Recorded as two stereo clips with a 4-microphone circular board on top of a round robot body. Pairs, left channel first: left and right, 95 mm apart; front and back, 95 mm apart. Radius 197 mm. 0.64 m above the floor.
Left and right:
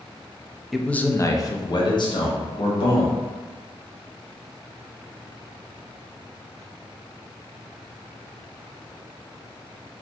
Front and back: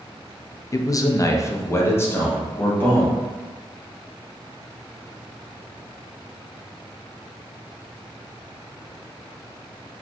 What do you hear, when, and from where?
0.7 s a man speaking: 5° right, 0.5 m; by 3.2 s 70° left, 1.4 m